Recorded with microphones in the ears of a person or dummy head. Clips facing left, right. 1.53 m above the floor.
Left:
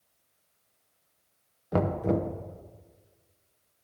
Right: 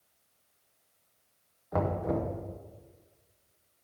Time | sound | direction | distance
1.7 | knocking | 40° left (ahead or behind) | 0.7 m